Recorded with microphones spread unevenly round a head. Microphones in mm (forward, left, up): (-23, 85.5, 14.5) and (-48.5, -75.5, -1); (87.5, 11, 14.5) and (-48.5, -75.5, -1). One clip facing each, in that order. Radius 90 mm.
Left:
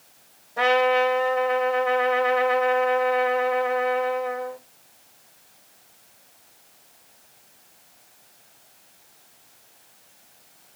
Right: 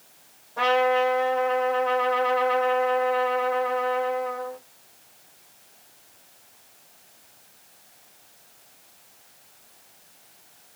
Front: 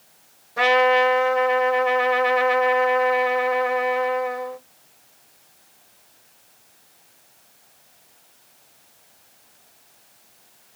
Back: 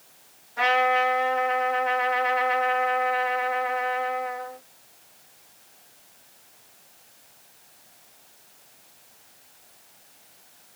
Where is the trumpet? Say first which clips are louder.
Left 1 dB, front 5 dB; 5° left, 2.5 m.